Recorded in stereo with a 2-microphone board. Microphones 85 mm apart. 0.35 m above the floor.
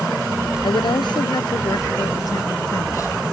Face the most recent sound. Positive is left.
turn(degrees=35)  # may be behind; listen again after turning